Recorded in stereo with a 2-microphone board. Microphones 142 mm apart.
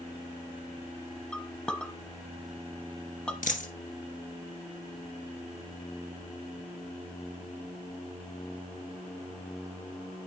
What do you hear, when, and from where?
1.3 s a clink: 5° left (ahead or behind), 1.0 m
3.4 s a dropped coin: 65° left (ahead or behind), 1.3 m